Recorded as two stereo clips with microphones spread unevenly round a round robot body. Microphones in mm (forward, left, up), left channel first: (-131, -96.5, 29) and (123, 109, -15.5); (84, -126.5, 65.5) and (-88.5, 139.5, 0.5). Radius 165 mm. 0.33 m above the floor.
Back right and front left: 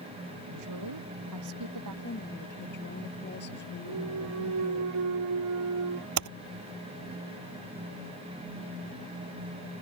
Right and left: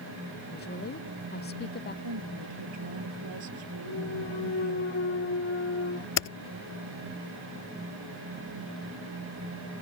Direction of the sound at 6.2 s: Straight ahead.